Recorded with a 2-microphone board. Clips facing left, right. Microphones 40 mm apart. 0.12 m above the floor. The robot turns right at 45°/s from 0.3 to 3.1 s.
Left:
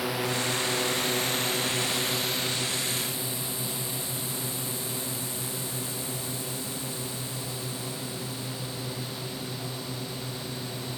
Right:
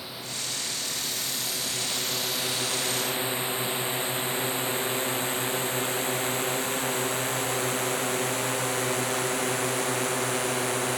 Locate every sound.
0.0 s a drone: 80° left; by 11.0 s 80° right